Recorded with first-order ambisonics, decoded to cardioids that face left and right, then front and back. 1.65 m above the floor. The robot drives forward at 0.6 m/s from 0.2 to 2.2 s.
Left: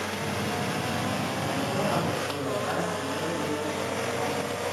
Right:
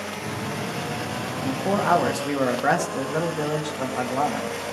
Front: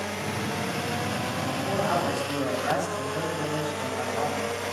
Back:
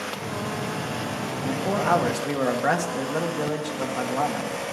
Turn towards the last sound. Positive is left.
turn(degrees=-125)